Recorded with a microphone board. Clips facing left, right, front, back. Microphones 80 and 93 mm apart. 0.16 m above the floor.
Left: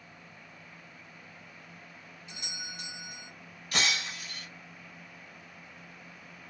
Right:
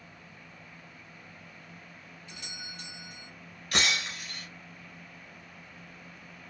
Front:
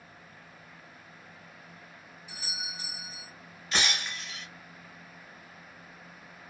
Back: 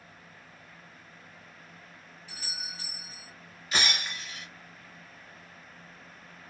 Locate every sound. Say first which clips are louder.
2.3 s a doorbell: left 2 dB, front 2 dB; 55° left, 1.6 m
3.7 s breaking glass: right 2 dB, even; 100° right, 1.5 m